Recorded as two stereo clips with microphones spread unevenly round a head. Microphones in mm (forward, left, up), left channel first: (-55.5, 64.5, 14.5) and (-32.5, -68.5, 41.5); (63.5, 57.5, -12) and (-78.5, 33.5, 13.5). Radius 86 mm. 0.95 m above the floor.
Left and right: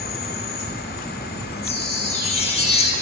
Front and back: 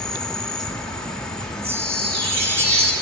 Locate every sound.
0.0 s an insect: 95° left, 1.0 m
1.6 s a chime: 140° left, 1.9 m